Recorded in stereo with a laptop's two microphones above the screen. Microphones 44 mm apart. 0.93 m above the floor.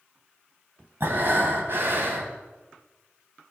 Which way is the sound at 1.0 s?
55° right (ahead or behind).